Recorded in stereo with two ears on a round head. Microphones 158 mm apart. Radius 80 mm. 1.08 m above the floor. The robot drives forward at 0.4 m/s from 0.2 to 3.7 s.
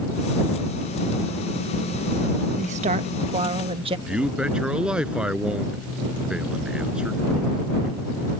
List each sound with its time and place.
2.6 s a woman speaking: 45° right (ahead or behind); by 4.0 s 30° right (ahead or behind)
4.1 s a man speaking: 5° right (ahead or behind)